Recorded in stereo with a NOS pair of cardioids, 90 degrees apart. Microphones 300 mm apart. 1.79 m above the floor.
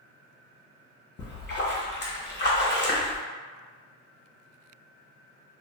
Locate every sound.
1.2 s a splash: 35° left, 1.3 m